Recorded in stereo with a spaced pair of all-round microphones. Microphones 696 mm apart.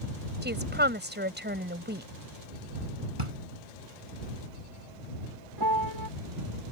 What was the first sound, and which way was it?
A woman speaking, 15° right (ahead or behind).